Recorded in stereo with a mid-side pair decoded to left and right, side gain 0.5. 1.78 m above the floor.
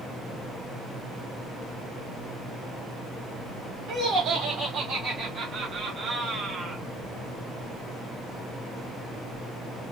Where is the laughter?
65° right, 2.0 m; by 6.8 s 40° right, 0.7 m.